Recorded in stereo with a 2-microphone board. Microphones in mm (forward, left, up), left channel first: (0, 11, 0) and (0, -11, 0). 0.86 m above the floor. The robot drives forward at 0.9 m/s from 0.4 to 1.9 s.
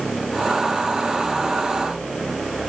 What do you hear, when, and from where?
Only background noise.